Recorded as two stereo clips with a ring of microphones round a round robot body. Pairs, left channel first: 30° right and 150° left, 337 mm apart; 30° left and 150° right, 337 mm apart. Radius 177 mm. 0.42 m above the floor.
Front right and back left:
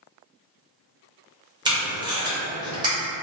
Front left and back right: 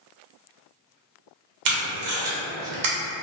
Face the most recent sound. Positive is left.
turn(degrees=-135)